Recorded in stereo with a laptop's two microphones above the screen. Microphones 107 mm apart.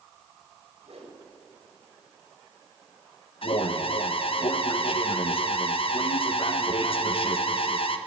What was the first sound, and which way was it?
A whoosh, 70° right (ahead or behind).